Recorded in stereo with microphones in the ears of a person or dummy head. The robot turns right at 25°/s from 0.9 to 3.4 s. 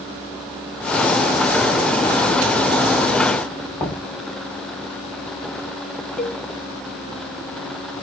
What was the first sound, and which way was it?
Knocking, 10° left (ahead or behind).